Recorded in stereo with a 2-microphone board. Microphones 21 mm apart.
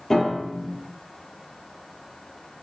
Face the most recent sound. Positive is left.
turn(degrees=25)  # may be behind; listen again after turning